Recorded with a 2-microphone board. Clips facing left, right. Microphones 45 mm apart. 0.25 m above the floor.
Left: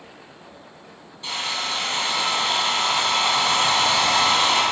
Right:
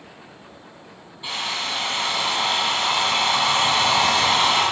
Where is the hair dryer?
15° right (ahead or behind), 4 m.